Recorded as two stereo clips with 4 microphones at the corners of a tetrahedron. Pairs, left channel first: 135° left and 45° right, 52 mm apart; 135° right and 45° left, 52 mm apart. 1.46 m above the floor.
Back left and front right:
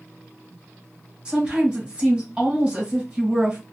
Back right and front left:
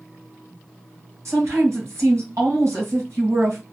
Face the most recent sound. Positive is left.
turn(degrees=25)